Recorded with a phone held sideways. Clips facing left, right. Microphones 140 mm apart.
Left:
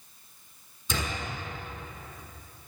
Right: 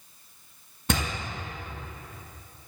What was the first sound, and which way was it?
A door slam, 75° right (ahead or behind).